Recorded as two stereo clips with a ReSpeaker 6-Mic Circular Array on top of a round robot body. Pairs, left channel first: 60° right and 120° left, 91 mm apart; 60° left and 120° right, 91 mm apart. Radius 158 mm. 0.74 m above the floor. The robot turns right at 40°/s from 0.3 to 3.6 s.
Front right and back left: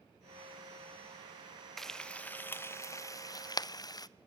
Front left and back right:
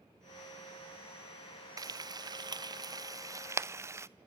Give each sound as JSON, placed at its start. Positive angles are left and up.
{"t": 1.8, "sound": "frying", "azimuth_deg": -145, "distance_m": 0.6}